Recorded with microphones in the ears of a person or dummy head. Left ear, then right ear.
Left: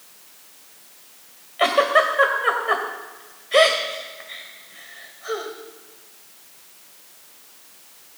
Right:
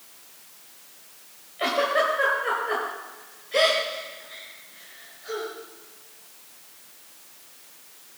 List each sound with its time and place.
1.6 s a giggle: 40° left (ahead or behind), 1.9 m